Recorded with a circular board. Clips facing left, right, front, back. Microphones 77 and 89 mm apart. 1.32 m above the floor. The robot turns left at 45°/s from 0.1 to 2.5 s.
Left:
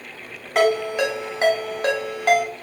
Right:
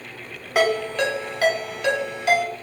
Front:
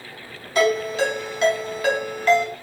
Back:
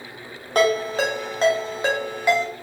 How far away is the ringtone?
About 1.2 m.